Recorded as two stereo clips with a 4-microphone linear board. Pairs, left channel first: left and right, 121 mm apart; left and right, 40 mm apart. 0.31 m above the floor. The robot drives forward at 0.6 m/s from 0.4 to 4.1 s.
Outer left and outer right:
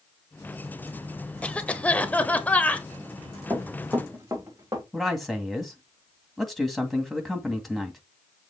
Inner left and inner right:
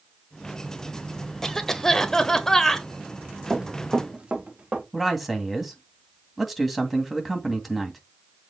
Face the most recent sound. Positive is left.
turn(degrees=0)  # may be behind; listen again after turning